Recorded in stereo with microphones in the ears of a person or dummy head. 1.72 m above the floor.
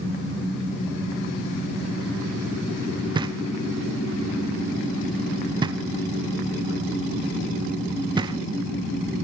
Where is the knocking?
30° right (ahead or behind), 0.6 m.